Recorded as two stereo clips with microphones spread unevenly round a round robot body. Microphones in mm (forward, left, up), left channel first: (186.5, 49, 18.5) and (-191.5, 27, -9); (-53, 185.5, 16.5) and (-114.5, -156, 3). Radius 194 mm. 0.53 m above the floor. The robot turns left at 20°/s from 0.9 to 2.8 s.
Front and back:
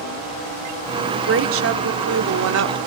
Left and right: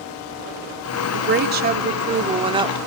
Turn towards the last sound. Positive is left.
turn(degrees=-170)